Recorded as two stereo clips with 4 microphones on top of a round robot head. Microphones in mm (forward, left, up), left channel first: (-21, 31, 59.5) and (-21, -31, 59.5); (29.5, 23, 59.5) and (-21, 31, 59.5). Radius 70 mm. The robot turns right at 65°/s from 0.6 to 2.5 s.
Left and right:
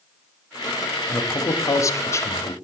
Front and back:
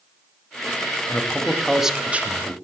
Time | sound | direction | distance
1.1 | a man speaking | 40° left | 1.1 m